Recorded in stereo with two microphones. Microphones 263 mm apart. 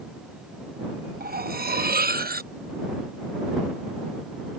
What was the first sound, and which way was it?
Cutlery clinking, 35° right (ahead or behind).